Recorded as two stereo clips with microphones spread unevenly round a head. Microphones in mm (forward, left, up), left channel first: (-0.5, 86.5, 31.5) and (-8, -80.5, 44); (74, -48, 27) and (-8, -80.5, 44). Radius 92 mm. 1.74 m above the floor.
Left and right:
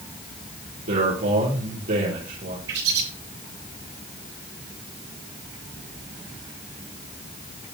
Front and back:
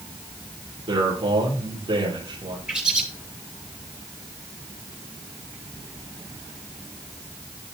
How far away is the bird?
About 8.5 m.